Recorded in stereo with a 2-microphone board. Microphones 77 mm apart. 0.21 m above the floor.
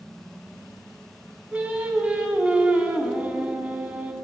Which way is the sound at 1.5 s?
20° right (ahead or behind).